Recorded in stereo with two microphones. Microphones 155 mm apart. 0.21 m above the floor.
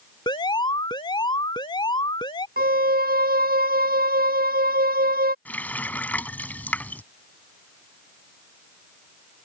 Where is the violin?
90° right.